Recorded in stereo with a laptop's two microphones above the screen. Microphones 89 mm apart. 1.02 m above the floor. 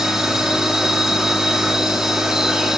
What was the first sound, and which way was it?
A machine running, 5° right (ahead or behind).